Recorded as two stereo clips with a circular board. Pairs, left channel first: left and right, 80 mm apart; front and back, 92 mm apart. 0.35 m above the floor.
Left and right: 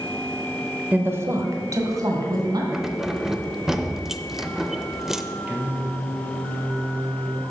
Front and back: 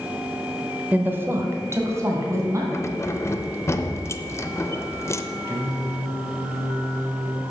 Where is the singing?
150° right, 1.4 m.